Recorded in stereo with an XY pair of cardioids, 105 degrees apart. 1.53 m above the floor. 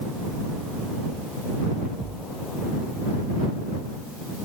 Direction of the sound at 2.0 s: 35° right.